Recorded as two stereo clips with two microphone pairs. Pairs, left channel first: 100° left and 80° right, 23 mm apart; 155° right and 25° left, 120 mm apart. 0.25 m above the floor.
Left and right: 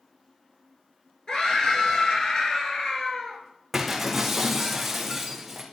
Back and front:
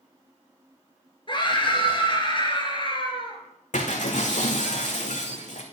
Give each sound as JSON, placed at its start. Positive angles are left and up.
{"t": 1.3, "sound": "a scream", "azimuth_deg": 155, "distance_m": 4.0}
{"t": 3.7, "sound": "breaking glass", "azimuth_deg": -160, "distance_m": 2.5}